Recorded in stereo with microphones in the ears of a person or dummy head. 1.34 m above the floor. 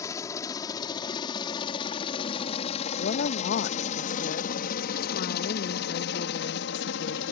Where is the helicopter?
20° left (ahead or behind); by 7.3 s 65° left (ahead or behind).